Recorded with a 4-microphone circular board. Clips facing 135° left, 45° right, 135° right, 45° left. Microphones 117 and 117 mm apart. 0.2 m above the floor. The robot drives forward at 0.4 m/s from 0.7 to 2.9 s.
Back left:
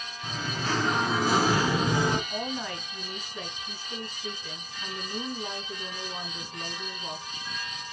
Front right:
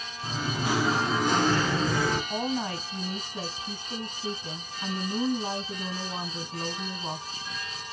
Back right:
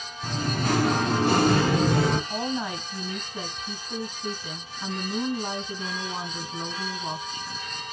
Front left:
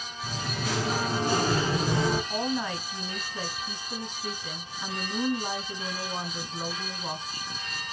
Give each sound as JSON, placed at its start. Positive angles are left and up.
{"t": 0.2, "sound": "singing", "azimuth_deg": -120, "distance_m": 0.5}
{"t": 2.3, "sound": "a woman speaking", "azimuth_deg": -60, "distance_m": 1.4}